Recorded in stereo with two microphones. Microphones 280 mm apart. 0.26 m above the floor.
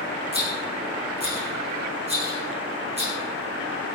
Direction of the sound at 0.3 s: 20° right (ahead or behind).